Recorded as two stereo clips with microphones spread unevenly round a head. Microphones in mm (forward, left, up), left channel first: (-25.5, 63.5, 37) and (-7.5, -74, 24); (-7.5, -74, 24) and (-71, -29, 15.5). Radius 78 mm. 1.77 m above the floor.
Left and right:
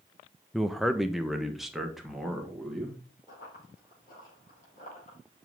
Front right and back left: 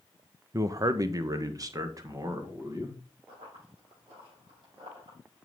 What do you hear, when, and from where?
0.5 s a man speaking: straight behind, 0.6 m; by 3.0 s 170° right, 2.5 m
3.3 s running footsteps: 110° left, 5.5 m; by 5.2 s 130° left, 5 m